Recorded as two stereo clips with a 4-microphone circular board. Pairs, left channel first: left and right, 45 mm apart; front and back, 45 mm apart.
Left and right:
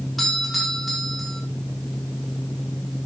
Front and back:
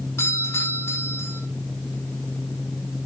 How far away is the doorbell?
About 7 m.